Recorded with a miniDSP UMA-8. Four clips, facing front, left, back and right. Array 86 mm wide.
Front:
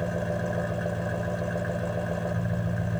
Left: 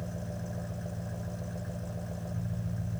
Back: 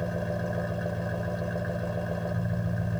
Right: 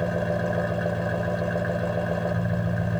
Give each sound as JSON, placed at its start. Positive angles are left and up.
{"t": 0.0, "sound": "an engine running", "azimuth_deg": -80}